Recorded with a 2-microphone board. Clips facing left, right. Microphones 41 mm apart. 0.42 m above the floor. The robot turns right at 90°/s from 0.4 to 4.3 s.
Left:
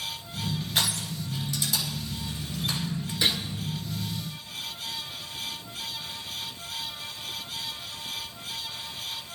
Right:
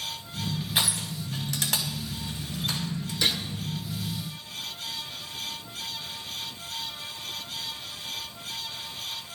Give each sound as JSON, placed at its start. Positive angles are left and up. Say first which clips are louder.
{"t": 0.8, "sound": "crushing", "louder": "even", "side_deg": -10, "distance_m": 3.5}
{"t": 3.2, "sound": "a gunshot", "louder": "left 1 dB", "side_deg": 20, "distance_m": 1.8}